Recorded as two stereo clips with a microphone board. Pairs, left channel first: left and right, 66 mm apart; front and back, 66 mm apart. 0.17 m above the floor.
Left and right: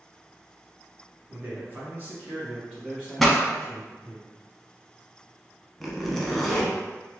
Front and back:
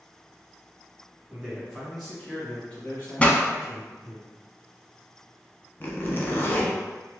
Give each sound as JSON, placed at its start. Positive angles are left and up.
{"t": 1.3, "sound": "a man speaking", "azimuth_deg": -115, "distance_m": 1.8}
{"t": 3.2, "sound": "a pop", "azimuth_deg": 5, "distance_m": 0.6}
{"t": 5.8, "sound": "a zipper", "azimuth_deg": 5, "distance_m": 0.8}